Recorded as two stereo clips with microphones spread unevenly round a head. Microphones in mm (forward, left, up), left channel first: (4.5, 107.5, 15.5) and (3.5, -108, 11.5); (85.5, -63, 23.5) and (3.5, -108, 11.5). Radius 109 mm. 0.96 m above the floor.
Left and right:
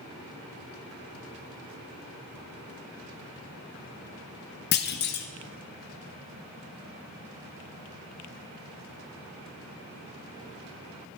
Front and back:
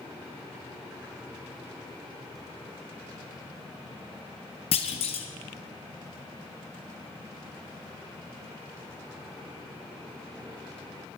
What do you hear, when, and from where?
4.7 s a clunk: 50° left, 1.2 m